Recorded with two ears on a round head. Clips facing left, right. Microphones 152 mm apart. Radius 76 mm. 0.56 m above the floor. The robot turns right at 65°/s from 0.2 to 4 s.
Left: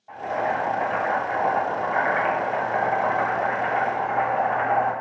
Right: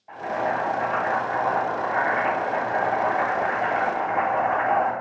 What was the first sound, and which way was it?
Boiling, 5° right.